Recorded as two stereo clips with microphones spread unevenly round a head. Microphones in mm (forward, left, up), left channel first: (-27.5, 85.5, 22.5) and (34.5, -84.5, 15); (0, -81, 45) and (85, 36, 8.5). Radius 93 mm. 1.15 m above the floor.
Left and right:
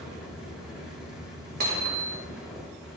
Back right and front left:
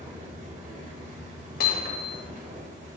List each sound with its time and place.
0.0 s a fan: 15° left, 5 m
1.6 s hammering: 105° right, 2 m